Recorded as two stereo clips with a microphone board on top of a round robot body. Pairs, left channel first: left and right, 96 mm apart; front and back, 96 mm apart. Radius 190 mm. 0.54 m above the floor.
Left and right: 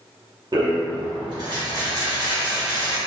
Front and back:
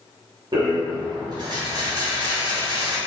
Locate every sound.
0.5 s a rattle: 135° right, 1.0 m